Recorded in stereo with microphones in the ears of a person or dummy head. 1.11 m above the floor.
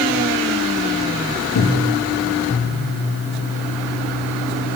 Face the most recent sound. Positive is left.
turn(degrees=70)  # may be behind; listen again after turning